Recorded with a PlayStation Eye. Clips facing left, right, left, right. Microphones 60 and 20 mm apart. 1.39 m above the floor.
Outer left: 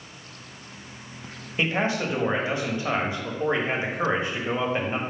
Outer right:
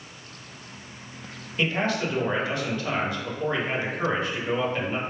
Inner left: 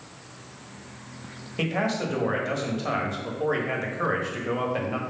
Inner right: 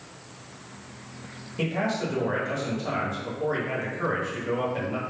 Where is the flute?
I don't hear a flute.